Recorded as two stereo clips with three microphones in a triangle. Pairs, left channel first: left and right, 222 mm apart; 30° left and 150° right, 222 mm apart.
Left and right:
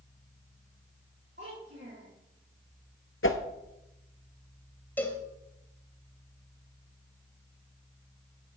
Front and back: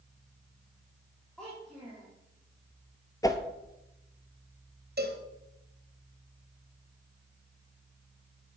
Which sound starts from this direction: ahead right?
A child speaking, at 1.4 s.